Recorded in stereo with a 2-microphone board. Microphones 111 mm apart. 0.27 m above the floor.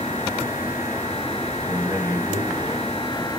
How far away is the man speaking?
About 2 m.